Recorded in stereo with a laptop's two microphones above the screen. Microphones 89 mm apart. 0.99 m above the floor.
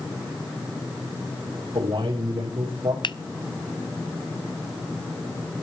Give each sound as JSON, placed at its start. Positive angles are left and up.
{"t": 1.7, "sound": "a man speaking", "side_deg": -70, "distance_m": 3.0}
{"t": 3.0, "sound": "a finger snap", "side_deg": 60, "distance_m": 0.5}